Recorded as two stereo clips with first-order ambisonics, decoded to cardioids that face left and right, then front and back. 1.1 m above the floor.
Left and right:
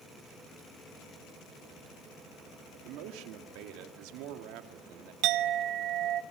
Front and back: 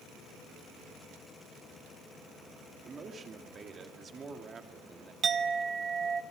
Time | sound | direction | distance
2.8 | a man speaking | 110° right | 1.9 m
5.2 | a clink | 115° right | 0.7 m